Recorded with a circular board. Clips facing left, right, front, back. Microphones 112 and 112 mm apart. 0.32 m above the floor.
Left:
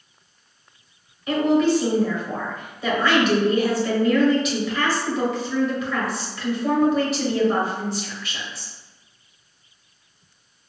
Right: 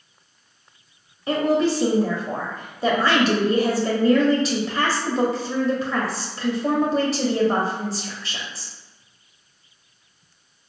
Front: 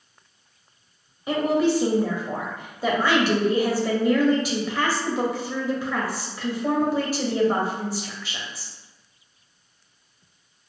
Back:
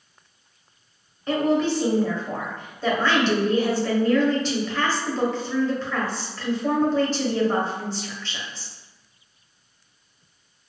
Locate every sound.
1.3 s a woman speaking: 70° right, 1.0 m